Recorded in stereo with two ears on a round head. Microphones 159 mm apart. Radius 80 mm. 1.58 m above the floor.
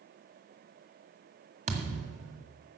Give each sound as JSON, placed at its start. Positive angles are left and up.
{"t": 1.7, "sound": "a thud", "side_deg": -40, "distance_m": 1.8}